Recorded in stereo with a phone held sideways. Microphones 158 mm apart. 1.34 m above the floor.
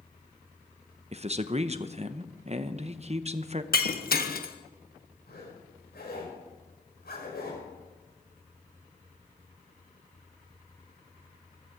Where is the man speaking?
45° right (ahead or behind), 0.7 m.